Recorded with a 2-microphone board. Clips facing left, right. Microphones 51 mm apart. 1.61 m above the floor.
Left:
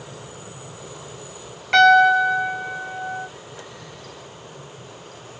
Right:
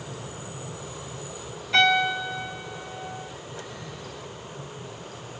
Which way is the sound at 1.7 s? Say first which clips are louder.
Left 9 dB; 70° left (ahead or behind).